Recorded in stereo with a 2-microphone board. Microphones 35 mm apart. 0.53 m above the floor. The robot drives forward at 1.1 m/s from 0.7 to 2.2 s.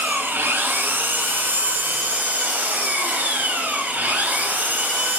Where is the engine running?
85° right, 2.0 m; by 5.2 s 55° right (ahead or behind), 2.5 m.